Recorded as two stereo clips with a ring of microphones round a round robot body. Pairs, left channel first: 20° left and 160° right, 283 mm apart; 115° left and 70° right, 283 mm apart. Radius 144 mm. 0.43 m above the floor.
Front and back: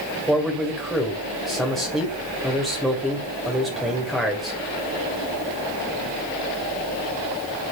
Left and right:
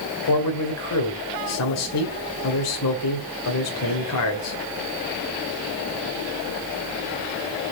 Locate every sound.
0.3 s a man speaking: 110° left, 2 m